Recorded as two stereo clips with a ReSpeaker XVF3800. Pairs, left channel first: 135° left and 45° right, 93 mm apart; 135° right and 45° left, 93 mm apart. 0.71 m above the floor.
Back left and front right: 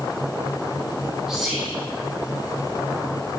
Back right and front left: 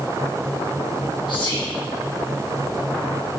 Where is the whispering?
125° right, 0.9 m.